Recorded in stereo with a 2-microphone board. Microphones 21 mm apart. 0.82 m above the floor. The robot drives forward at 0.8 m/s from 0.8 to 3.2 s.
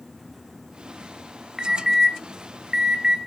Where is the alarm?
20° right (ahead or behind), 1.9 m; by 3.2 s 30° right (ahead or behind), 1.4 m.